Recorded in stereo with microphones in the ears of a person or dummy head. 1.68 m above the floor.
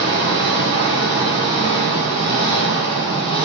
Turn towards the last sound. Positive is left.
turn(degrees=-60)  # may be behind; listen again after turning